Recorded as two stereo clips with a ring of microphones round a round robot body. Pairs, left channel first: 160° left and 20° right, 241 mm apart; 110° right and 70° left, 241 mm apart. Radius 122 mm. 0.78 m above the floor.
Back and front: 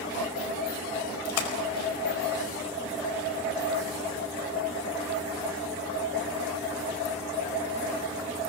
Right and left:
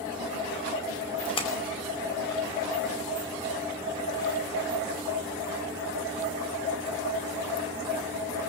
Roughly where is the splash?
Behind.